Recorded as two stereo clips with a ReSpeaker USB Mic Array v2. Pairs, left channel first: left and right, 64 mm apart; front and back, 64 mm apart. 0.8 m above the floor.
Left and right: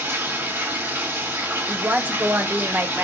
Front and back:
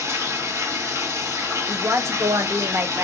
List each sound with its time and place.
0.0 s running water: 145° right, 1.6 m
1.7 s a woman speaking: 145° right, 0.6 m